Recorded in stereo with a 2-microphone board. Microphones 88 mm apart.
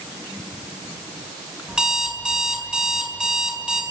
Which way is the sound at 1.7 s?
10° right (ahead or behind).